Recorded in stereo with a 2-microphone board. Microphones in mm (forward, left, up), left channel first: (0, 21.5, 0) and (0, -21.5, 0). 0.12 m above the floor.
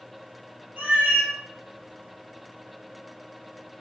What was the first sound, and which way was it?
A cat meowing, 40° right (ahead or behind).